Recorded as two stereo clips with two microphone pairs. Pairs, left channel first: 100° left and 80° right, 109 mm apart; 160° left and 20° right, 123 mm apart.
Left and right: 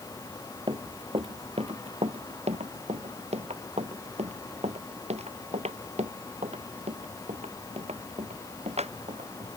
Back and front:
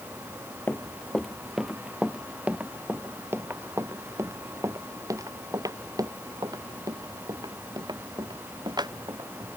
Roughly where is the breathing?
I don't hear breathing.